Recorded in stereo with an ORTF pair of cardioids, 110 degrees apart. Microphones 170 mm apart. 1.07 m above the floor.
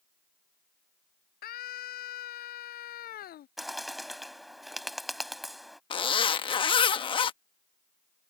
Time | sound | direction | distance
1.4 | a scream | 60° left | ?
3.6 | a bird | straight ahead | ?
5.9 | a zipper | 30° left | ?